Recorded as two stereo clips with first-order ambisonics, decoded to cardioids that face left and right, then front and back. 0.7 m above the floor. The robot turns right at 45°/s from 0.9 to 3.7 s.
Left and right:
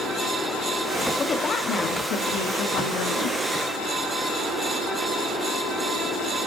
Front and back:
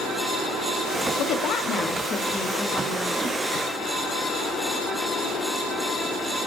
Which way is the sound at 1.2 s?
20° left.